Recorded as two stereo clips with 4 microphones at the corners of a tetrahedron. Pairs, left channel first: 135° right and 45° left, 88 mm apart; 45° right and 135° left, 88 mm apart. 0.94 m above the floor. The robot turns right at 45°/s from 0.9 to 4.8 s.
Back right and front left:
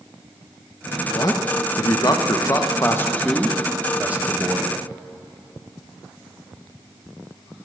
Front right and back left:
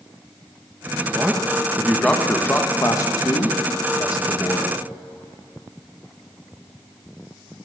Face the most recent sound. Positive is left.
turn(degrees=5)